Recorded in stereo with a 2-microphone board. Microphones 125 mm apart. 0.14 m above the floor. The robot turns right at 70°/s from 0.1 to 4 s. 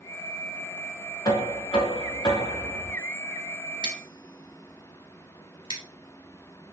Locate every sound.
1.2 s knocking: 50° left, 1.0 m; by 3.0 s 170° left, 1.0 m
3.8 s scissors: 35° right (ahead or behind), 1.0 m; by 5.8 s 40° right (ahead or behind), 1.0 m